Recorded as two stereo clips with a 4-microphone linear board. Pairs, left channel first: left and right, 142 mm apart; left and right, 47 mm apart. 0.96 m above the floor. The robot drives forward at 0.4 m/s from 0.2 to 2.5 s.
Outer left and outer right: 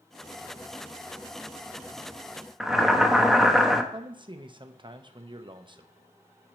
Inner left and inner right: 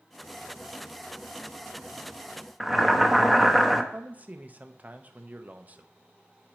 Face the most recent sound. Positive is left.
turn(degrees=-35)  # may be behind; listen again after turning